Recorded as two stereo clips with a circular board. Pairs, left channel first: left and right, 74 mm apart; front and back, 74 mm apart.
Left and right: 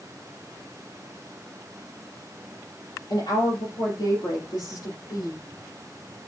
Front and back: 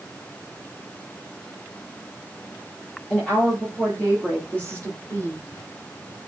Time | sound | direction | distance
3.1 | a woman speaking | 80° left | 6.5 m